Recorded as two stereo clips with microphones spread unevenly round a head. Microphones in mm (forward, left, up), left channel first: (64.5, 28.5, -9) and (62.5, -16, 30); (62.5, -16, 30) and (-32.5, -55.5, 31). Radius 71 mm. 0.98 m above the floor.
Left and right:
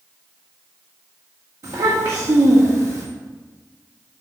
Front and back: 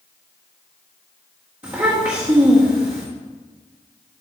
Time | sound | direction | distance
1.6 | a child speaking | 95° right | 1.6 m